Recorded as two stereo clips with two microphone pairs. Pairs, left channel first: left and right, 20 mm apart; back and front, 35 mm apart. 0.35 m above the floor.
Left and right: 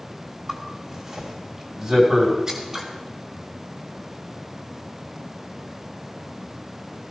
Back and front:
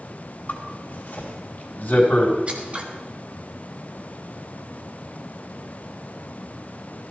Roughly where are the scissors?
Ahead right.